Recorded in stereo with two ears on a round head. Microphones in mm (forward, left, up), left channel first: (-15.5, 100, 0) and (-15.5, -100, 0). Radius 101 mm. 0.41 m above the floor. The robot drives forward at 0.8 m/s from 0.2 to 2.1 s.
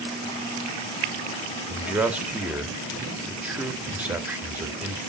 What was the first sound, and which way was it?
A man speaking, 10° right (ahead or behind).